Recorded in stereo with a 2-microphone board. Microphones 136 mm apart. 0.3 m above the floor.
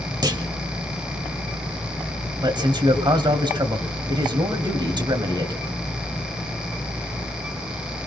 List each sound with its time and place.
0.2 s a clunk: 30° right (ahead or behind), 1.0 m
2.4 s a man speaking: 35° right (ahead or behind), 1.9 m